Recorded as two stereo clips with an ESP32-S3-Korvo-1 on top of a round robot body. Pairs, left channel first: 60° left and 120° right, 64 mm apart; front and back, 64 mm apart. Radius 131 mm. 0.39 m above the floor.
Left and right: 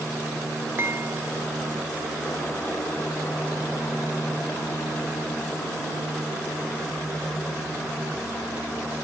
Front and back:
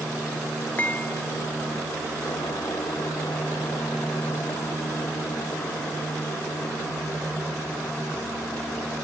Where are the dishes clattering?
65° right.